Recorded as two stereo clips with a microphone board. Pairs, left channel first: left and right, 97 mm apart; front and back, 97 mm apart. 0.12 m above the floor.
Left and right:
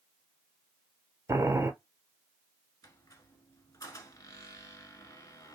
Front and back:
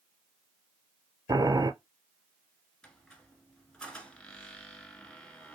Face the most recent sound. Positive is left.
turn(degrees=75)